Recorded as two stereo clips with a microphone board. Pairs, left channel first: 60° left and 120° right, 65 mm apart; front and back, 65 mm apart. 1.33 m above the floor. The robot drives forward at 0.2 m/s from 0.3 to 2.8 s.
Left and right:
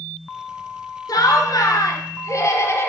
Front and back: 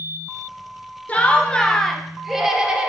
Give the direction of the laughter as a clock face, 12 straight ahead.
10 o'clock.